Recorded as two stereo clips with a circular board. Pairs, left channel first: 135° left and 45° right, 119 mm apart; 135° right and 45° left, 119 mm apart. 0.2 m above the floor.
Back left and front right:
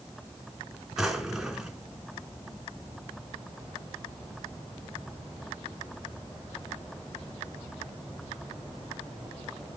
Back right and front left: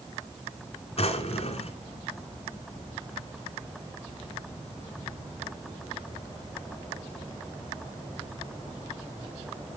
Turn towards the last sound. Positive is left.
turn(degrees=-130)